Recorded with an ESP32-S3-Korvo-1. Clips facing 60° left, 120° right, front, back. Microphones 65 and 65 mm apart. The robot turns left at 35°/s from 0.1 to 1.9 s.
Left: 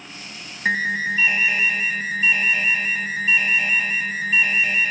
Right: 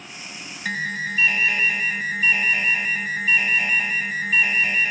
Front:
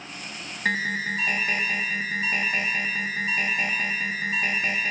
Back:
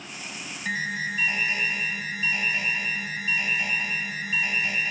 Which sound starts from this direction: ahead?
An alarm, at 0.7 s.